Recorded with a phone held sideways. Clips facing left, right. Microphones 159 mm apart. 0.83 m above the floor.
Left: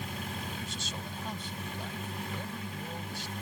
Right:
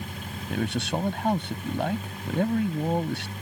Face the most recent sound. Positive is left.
turn(degrees=-65)  # may be behind; listen again after turning